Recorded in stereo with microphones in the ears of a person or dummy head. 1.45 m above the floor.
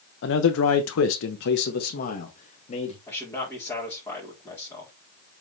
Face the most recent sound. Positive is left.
turn(degrees=20)  # may be behind; listen again after turning